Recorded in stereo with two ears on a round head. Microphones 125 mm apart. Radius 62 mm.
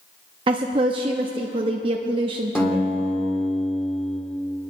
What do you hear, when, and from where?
0.5 s a woman speaking: 35° right (ahead or behind), 0.6 m
2.5 s a guitar: 10° left (ahead or behind), 2 m